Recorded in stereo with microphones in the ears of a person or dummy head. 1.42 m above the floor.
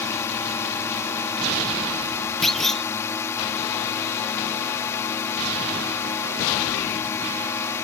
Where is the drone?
15° left (ahead or behind).